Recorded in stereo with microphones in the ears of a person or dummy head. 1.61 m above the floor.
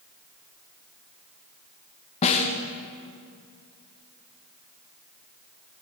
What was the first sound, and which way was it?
A snare drum, 30° left (ahead or behind).